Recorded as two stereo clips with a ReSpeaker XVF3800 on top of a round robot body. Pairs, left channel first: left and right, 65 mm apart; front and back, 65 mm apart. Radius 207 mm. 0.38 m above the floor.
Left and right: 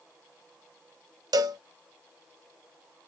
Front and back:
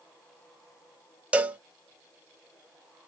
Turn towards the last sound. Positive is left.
turn(degrees=-110)